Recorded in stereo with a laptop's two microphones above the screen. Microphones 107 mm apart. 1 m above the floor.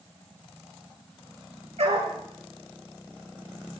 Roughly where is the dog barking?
Right.